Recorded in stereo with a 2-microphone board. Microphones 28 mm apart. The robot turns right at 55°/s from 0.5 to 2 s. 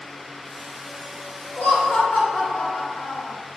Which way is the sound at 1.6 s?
70° left (ahead or behind).